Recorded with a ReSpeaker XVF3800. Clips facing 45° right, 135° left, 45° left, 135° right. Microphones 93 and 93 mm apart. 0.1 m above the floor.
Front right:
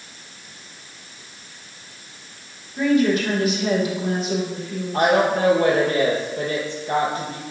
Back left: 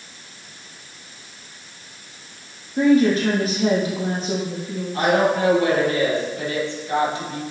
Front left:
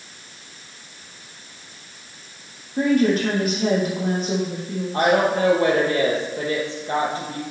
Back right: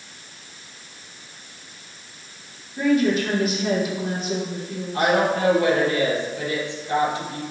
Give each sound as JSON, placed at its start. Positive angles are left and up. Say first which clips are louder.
{"t": 2.8, "sound": "a woman speaking", "louder": "back left 3 dB, front left 1 dB", "azimuth_deg": 80, "distance_m": 4.5}
{"t": 4.9, "sound": "a woman speaking", "louder": "front right 1 dB, front left 2 dB", "azimuth_deg": 0, "distance_m": 3.5}